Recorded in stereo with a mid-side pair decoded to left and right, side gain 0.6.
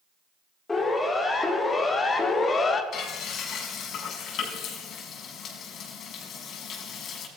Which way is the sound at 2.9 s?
55° left.